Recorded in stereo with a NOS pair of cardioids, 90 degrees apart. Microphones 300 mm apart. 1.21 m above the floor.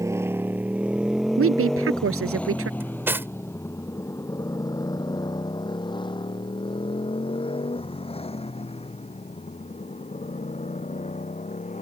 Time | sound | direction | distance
0.0 | a motorcycle | 10° right | ?
1.4 | a woman speaking | 45° right | ?
2.8 | cutlery clinking | 5° right | ?